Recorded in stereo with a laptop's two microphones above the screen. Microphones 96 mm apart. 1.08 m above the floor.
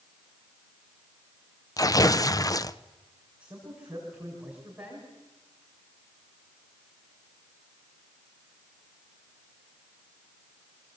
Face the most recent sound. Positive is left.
turn(degrees=-10)  # may be behind; listen again after turning